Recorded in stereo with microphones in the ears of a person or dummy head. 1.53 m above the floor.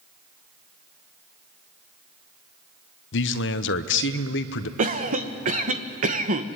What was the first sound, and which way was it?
A man speaking, 75° left (ahead or behind).